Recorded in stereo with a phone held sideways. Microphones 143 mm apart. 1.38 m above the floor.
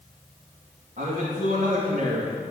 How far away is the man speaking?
About 2.5 m.